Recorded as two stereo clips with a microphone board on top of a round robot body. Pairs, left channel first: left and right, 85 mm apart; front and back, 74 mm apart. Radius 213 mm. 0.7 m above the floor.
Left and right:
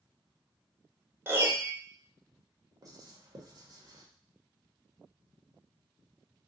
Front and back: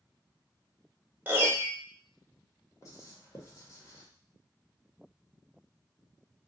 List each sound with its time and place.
1.3 s a piano: 135° right, 1.2 m
2.8 s writing: 45° right, 1.2 m